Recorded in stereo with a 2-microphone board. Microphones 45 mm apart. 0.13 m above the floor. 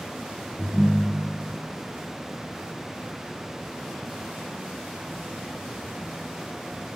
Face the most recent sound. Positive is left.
turn(degrees=-30)  # may be behind; listen again after turning